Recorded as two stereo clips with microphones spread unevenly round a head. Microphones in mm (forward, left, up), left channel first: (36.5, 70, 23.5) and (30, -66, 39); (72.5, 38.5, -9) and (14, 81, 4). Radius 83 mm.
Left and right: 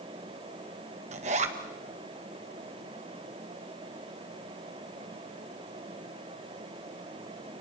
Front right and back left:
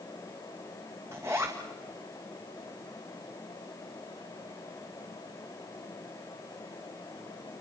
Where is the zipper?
140° right, 1.6 m.